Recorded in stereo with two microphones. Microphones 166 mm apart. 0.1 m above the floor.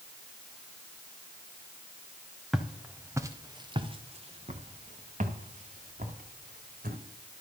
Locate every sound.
2.5 s footsteps: centre (ahead or behind), 1.2 m; by 7.0 s 65° right (ahead or behind), 2.5 m